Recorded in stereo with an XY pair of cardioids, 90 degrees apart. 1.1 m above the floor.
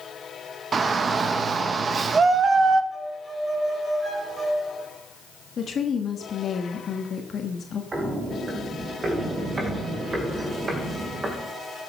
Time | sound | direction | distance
0.7 | a shout | 50° right | 1.3 m
2.9 | a violin | 25° right | 7.5 m
5.6 | a woman speaking | 55° left | 1.6 m
7.9 | footsteps | 35° right | 4.5 m